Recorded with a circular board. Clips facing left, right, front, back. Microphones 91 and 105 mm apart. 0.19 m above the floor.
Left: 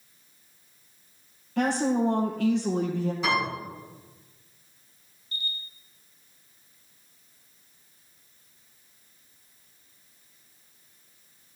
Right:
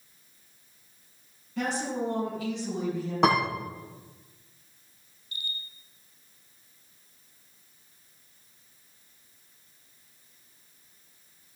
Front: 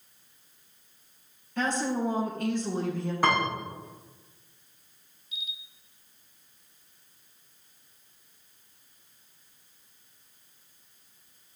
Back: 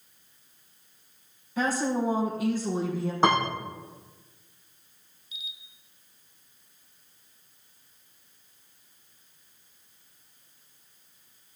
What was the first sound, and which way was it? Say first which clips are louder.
A woman speaking: left 6 dB, back 2 dB; 95° left.